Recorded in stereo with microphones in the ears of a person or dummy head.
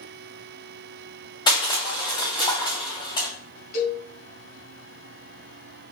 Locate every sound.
1.5 s crushing: 25° left (ahead or behind), 2.0 m
3.7 s a cowbell: 45° left (ahead or behind), 3 m